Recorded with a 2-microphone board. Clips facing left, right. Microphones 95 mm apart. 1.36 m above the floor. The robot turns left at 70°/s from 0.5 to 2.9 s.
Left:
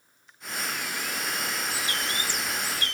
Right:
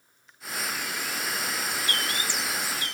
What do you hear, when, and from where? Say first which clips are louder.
1.7 s a bird: right 1 dB; 175° left; by 2.9 s 90° left